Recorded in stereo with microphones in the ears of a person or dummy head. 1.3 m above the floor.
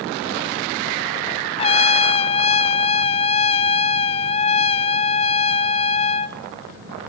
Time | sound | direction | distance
1.6 | a trumpet | 25° left (ahead or behind) | 0.6 m